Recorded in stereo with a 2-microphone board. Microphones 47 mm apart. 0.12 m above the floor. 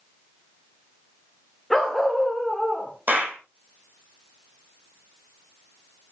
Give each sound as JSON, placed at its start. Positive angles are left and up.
{"t": 1.7, "sound": "a dog barking", "side_deg": 5, "distance_m": 3.0}
{"t": 3.1, "sound": "a clap", "side_deg": -40, "distance_m": 4.5}